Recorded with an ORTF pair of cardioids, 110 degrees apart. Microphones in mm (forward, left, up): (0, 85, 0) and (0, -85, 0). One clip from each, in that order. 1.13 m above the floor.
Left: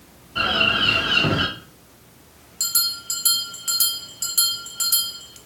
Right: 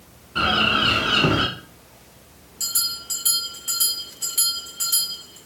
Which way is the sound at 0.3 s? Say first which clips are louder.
Even; 20° right.